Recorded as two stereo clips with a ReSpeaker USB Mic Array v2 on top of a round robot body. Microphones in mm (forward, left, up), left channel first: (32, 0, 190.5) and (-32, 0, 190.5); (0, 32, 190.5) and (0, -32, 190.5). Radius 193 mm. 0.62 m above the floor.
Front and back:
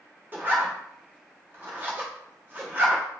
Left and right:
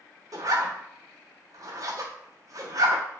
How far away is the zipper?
About 1.2 m.